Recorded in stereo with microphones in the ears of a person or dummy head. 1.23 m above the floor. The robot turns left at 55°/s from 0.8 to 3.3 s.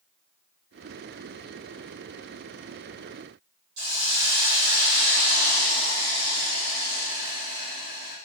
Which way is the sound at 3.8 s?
80° right.